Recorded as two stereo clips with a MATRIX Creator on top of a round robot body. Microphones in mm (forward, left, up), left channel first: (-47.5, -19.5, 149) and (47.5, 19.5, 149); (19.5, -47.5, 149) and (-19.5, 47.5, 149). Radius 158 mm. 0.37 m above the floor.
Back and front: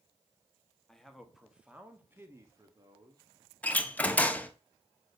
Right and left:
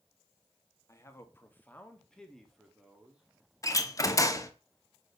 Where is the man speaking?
80° right, 1.5 m; by 3.2 s 40° left, 1.7 m.